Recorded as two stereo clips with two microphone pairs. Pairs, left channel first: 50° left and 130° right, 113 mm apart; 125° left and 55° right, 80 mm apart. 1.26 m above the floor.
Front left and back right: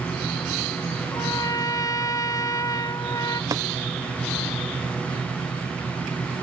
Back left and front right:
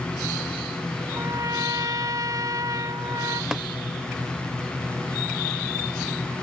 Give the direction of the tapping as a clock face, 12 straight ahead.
4 o'clock.